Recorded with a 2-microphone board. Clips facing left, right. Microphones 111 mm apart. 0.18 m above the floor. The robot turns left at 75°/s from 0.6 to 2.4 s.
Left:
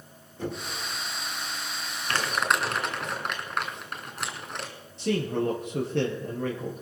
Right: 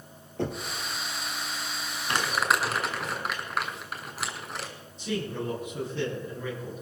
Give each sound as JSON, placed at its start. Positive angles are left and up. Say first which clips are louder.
{"t": 0.4, "sound": "knocking", "louder": "right 2 dB", "side_deg": -75, "distance_m": 3.5}
{"t": 2.1, "sound": "crumpling", "louder": "even", "side_deg": -20, "distance_m": 2.5}
{"t": 5.0, "sound": "a man speaking", "louder": "left 5 dB", "side_deg": 70, "distance_m": 4.0}